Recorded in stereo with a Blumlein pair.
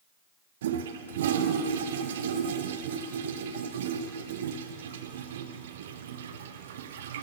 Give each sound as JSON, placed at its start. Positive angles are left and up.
{"t": 0.6, "sound": "a toilet flushing", "azimuth_deg": -60, "distance_m": 0.5}